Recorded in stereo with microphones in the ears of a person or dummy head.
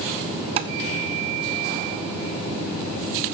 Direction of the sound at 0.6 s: 35° right (ahead or behind).